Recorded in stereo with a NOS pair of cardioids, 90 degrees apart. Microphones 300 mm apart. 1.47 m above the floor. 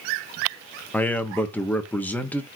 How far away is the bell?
No bell in this recording.